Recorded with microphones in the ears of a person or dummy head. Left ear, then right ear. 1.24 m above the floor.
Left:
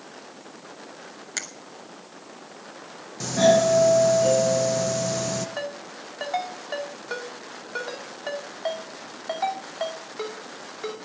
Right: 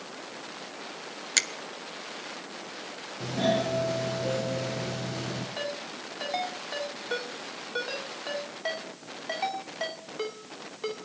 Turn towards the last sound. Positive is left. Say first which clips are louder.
# left 1 dB
turn(degrees=15)  # may be behind; listen again after turning